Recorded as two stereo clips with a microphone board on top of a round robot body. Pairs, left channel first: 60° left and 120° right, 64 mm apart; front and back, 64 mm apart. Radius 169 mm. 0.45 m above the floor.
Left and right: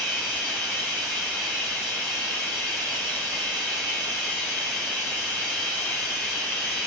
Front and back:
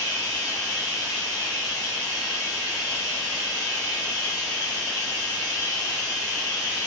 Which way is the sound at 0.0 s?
15° right.